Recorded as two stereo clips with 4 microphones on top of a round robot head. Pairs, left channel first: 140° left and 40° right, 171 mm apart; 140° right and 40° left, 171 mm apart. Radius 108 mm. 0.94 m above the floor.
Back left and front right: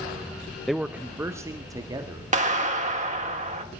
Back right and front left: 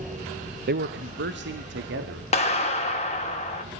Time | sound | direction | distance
0.7 | a man speaking | 50° left | 0.6 m
2.3 | a clap | 90° right | 2.5 m